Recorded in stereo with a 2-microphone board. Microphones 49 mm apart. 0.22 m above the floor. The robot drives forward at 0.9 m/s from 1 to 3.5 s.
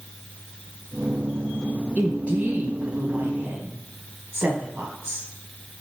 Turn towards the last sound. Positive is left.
turn(degrees=-30)  # may be behind; listen again after turning